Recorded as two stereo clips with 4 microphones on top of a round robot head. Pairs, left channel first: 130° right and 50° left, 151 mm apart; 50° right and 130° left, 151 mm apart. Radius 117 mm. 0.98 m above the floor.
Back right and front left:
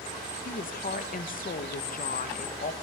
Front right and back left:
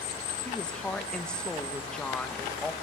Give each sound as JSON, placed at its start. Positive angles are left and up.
{"t": 0.5, "sound": "a woman speaking", "azimuth_deg": -135, "distance_m": 1.3}